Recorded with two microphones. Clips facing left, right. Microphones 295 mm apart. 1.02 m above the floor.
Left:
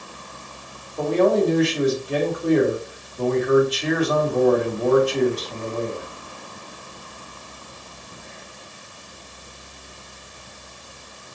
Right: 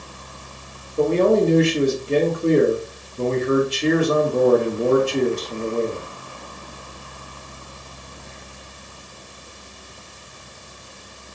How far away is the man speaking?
About 1.6 m.